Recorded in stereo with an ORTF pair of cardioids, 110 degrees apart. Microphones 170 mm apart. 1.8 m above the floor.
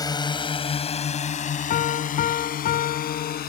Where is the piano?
65° left.